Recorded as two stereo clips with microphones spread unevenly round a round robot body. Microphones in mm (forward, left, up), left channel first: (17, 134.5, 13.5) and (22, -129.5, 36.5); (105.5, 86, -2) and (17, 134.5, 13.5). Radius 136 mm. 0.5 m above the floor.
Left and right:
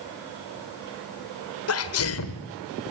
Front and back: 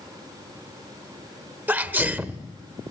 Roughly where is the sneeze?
Left.